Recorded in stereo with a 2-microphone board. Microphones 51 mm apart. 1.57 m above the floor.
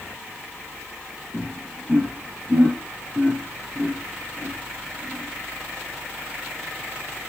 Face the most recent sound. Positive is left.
turn(degrees=-30)  # may be behind; listen again after turning